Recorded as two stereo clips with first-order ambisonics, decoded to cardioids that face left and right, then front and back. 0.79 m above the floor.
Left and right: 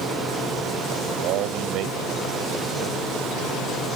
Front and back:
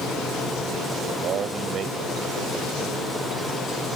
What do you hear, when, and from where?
1.2 s a man speaking: 125° right